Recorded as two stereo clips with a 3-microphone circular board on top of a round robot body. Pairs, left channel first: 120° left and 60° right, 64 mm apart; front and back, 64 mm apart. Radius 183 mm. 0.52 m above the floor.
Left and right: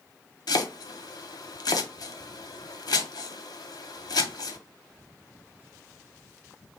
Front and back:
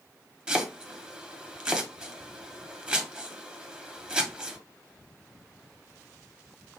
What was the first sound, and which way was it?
Chopping, 105° left.